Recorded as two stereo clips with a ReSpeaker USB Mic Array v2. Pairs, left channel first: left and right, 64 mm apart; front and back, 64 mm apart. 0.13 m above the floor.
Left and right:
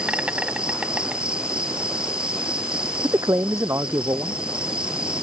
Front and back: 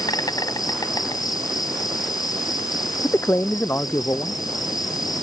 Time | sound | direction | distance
0.0 | an insect | 15° right | ?
3.0 | a man speaking | 55° right | ?